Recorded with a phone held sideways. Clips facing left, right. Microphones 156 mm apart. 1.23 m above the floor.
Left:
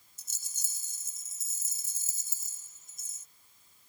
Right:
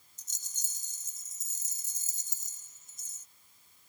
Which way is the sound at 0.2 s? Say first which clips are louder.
Even; 10° left (ahead or behind).